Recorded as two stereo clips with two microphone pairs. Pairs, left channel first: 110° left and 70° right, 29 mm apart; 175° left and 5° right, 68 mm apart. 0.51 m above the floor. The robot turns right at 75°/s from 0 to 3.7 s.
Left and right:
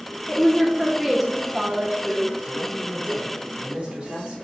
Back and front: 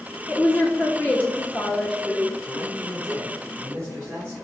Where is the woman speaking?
140° left, 0.8 m; by 2.3 s 70° right, 0.8 m.